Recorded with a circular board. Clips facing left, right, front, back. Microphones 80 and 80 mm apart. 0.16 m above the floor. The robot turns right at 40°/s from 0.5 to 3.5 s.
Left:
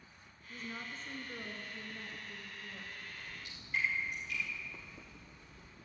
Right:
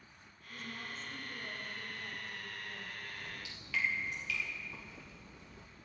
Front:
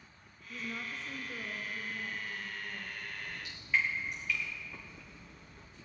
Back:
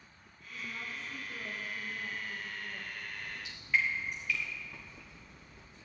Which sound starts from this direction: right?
Dripping, at 3.2 s.